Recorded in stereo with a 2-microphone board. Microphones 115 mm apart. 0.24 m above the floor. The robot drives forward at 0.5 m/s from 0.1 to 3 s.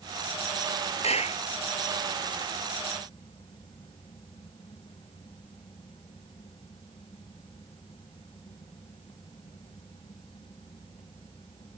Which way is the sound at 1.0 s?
70° left (ahead or behind).